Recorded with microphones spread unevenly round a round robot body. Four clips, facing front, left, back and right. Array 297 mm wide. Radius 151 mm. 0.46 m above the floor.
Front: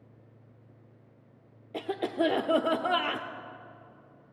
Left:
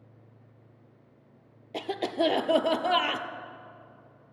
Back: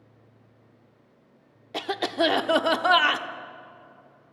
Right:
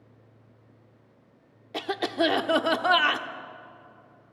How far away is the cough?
About 0.8 m.